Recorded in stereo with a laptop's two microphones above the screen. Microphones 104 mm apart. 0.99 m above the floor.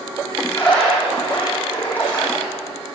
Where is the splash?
15° left (ahead or behind), 7 m.